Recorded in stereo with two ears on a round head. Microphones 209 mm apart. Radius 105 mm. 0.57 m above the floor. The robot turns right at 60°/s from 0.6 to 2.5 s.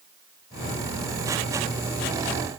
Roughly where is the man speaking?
I don't hear a man speaking.